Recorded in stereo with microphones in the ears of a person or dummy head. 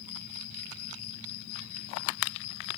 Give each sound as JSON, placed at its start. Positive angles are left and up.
{"t": 0.0, "sound": "an insect", "side_deg": 80}